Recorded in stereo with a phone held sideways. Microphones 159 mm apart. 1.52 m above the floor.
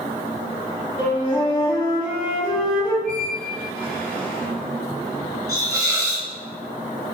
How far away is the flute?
About 1.7 m.